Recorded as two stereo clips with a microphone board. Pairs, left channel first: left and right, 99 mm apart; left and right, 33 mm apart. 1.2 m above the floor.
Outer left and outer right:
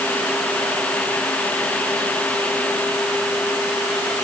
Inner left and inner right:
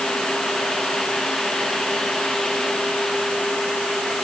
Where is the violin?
No violin in this recording.